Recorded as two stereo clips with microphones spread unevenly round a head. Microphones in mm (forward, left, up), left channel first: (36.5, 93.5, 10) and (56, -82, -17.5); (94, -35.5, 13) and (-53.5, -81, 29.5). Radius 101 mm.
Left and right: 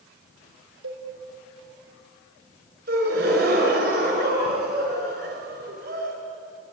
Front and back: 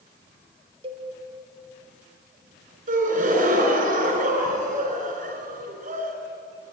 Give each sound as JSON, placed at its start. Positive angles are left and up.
{"t": 0.8, "sound": "a cowbell", "azimuth_deg": -105, "distance_m": 2.5}
{"t": 2.9, "sound": "a gasp", "azimuth_deg": -130, "distance_m": 3.5}